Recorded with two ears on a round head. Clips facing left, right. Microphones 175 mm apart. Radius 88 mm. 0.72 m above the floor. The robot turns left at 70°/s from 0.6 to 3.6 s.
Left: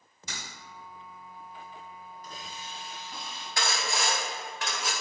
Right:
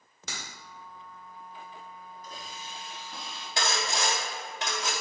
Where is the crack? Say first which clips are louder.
Right 1 dB; 55° right (ahead or behind), 1.6 m.